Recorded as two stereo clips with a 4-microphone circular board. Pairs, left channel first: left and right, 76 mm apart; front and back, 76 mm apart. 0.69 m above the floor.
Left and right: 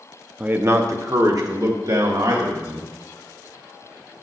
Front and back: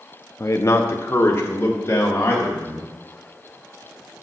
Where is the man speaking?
25° right, 0.6 m; by 2.9 s 60° right, 3 m.